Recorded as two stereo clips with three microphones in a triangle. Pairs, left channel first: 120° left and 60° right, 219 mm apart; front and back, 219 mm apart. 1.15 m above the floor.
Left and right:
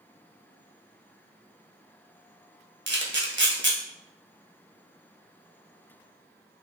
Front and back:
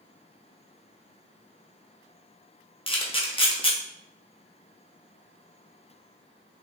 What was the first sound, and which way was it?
A camera shutter, 65° right.